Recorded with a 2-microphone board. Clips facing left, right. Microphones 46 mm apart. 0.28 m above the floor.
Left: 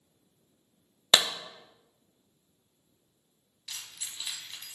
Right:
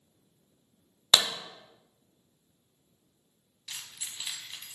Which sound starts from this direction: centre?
Keys jangling, at 3.7 s.